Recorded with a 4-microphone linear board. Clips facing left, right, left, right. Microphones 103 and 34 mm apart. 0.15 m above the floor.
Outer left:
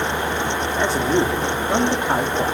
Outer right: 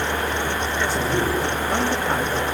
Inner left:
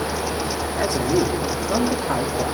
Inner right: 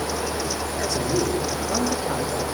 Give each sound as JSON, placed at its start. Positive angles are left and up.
{"t": 0.8, "sound": "a man speaking", "side_deg": 15, "distance_m": 8.0}